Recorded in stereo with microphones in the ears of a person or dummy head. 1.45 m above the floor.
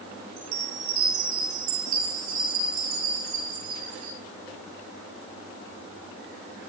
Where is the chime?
40° right (ahead or behind), 5.5 m.